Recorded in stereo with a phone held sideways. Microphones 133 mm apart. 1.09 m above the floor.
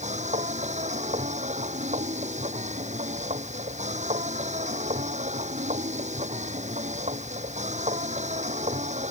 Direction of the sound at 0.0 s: 60° right (ahead or behind).